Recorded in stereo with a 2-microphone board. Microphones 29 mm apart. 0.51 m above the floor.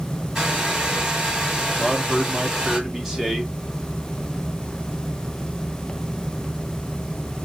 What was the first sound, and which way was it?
A hair dryer, 20° right (ahead or behind).